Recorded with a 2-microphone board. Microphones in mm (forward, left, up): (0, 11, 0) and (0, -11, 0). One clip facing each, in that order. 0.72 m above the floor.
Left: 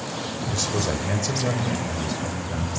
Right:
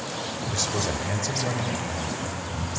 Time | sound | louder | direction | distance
0.5 | a man speaking | left 2 dB | centre (ahead or behind) | 2.5 m